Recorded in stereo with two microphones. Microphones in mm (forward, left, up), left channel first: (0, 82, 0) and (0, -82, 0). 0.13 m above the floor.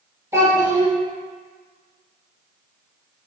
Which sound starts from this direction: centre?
A child speaking, at 0.3 s.